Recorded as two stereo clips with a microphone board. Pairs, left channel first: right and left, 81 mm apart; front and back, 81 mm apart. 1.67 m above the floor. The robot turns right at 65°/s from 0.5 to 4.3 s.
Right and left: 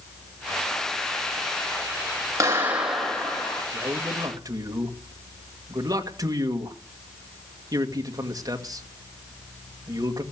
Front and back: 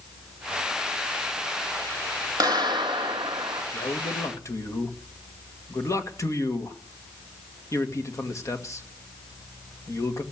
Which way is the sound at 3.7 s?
10° left.